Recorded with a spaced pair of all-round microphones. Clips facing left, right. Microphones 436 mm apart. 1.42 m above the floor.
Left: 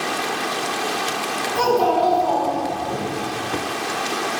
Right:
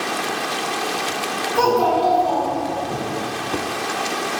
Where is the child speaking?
70° right (ahead or behind), 1.4 m; by 2.9 s 65° right (ahead or behind), 3 m.